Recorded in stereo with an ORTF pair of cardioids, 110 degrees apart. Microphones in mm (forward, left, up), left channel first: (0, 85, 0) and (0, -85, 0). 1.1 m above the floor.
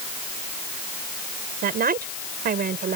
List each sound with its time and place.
1.6 s a woman speaking: 65° right